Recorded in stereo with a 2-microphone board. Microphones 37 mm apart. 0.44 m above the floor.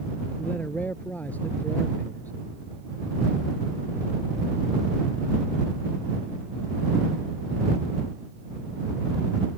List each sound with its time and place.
0.4 s a man speaking: 50° left (ahead or behind)